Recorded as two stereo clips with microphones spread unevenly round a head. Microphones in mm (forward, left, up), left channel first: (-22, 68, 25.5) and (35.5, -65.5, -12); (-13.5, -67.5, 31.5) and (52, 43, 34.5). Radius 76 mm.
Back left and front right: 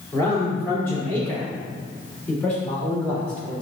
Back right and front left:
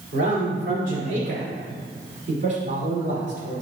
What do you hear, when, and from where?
0.1 s a man speaking: 40° left, 5 m; by 3.6 s 30° left, 6 m